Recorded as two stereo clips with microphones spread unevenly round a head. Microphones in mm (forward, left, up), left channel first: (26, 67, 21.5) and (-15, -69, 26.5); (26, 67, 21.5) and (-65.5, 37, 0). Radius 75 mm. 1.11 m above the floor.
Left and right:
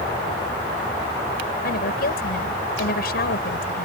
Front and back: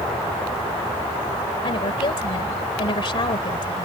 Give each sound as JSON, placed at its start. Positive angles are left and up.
{"t": 1.6, "sound": "a woman speaking", "azimuth_deg": 50}